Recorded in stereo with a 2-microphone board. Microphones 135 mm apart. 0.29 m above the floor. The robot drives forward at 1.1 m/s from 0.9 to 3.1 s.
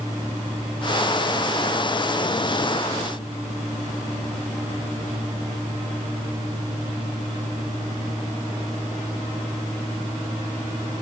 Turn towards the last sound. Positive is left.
No sound to turn to.